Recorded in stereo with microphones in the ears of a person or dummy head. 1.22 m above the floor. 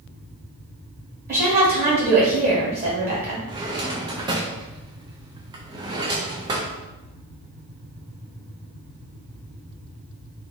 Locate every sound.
1.3 s a woman speaking: 45° right (ahead or behind), 1.2 m
3.5 s a drawer: 25° right (ahead or behind), 0.5 m